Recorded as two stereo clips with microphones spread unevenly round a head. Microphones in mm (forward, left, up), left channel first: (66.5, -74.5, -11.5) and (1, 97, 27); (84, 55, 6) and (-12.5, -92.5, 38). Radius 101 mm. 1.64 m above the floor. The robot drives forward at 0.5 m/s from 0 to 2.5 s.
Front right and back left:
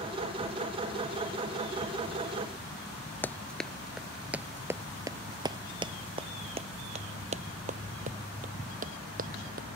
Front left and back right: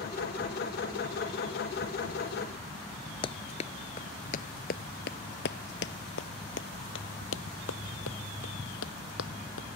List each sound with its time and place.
3.2 s running footsteps: 25° left; by 9.7 s 85° left